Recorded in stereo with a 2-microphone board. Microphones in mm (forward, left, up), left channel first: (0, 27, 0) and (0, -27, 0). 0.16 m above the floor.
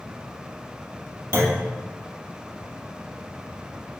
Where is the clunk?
45° right (ahead or behind), 1.3 m.